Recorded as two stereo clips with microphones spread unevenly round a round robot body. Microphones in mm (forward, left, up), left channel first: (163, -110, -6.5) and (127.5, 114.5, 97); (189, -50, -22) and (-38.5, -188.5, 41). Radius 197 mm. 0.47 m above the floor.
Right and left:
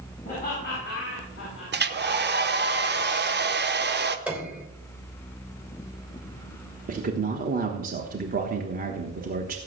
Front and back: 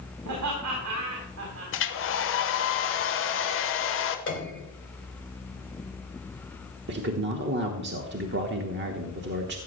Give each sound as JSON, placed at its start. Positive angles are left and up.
{"t": 0.2, "sound": "laughter", "azimuth_deg": -140, "distance_m": 4.0}
{"t": 1.7, "sound": "a hair dryer", "azimuth_deg": 40, "distance_m": 1.2}
{"t": 4.3, "sound": "a piano", "azimuth_deg": 0, "distance_m": 3.0}
{"t": 6.9, "sound": "a man speaking", "azimuth_deg": 170, "distance_m": 1.1}